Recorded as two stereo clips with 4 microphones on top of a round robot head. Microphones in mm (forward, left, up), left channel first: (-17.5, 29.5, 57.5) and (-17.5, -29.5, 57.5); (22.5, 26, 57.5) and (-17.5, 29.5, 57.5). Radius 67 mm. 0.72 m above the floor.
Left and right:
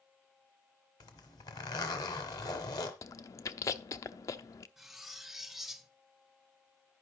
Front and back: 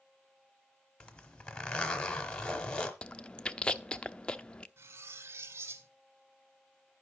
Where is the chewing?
60° left, 0.5 m.